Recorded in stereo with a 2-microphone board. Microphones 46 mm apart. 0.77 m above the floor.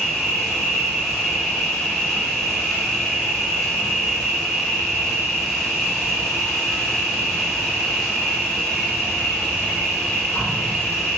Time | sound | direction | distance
0.0 | an insect | 5° right (ahead or behind) | 1.7 m